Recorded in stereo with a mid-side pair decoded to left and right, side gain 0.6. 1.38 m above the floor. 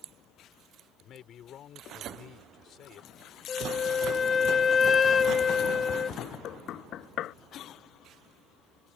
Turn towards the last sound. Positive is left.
turn(degrees=55)